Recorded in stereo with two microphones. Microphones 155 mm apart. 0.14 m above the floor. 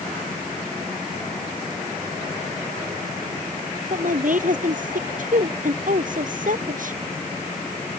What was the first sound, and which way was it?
A woman speaking, 60° right (ahead or behind).